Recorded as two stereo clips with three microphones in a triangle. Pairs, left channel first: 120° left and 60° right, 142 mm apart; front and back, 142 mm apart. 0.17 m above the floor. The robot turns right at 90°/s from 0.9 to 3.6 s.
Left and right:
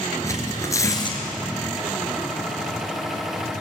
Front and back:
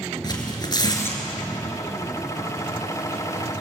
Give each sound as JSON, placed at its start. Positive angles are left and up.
{"t": 0.2, "sound": "tearing paper", "azimuth_deg": 55, "distance_m": 3.5}